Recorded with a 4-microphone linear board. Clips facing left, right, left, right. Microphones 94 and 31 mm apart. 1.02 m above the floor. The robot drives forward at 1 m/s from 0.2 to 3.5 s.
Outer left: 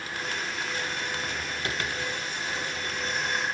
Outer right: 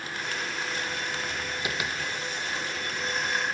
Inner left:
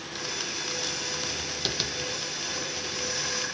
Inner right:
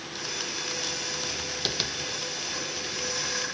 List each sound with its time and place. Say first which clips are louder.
1.6 s tapping: even, inner right 1 dB; 5° right (ahead or behind), 1.0 m; by 1.9 s 10° right (ahead or behind), 0.7 m